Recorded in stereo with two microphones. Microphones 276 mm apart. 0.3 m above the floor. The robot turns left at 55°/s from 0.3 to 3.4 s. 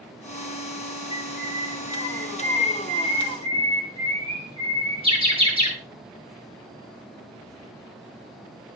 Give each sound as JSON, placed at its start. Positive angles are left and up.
{"t": 1.1, "sound": "a bird", "side_deg": 70, "distance_m": 6.5}